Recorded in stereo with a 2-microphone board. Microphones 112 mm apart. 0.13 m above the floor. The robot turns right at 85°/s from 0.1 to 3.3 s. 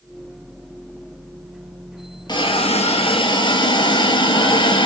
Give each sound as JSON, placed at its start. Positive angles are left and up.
{"t": 2.3, "sound": "a hiss", "azimuth_deg": 45, "distance_m": 2.0}